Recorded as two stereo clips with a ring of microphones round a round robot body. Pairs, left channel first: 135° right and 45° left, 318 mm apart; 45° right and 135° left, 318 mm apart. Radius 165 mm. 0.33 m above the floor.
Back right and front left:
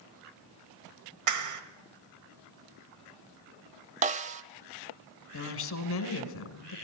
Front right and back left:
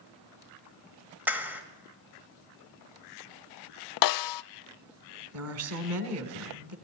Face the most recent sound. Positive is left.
turn(degrees=175)